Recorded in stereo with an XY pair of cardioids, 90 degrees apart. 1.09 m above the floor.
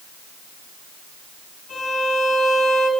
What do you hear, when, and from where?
1.7 s a violin: 50° left, 3.5 m